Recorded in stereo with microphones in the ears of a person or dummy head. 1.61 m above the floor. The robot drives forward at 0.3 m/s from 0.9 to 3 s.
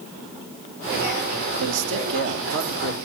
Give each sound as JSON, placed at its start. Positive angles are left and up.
{"t": 1.6, "sound": "a man speaking", "side_deg": -70, "distance_m": 2.5}